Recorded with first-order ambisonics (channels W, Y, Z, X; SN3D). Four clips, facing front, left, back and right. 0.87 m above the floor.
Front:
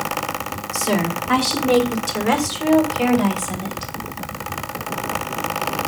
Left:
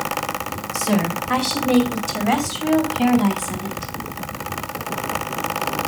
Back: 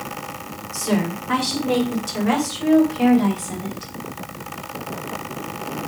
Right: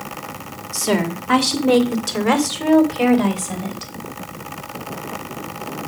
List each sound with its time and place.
0.7 s a woman speaking: 80° right, 2.5 m; by 3.9 s 75° right, 4 m